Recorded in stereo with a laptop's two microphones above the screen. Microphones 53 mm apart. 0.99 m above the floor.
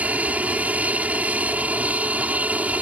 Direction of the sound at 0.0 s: 25° right (ahead or behind).